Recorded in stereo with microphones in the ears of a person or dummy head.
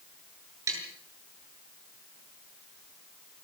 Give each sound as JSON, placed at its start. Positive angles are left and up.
{"t": 0.7, "sound": "tapping", "side_deg": -15, "distance_m": 7.0}